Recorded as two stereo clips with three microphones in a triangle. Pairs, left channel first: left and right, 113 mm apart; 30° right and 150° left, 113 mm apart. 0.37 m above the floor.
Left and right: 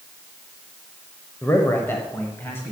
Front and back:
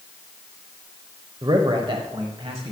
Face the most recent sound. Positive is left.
turn(degrees=160)